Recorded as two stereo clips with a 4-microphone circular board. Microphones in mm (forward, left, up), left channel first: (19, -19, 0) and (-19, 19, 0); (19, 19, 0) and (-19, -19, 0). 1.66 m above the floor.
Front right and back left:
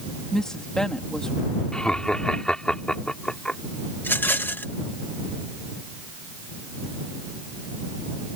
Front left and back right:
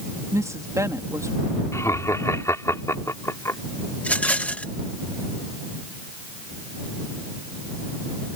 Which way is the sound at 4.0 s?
5° right.